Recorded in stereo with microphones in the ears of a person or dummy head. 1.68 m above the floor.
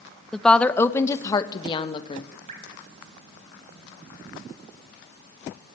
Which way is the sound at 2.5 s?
45° right (ahead or behind).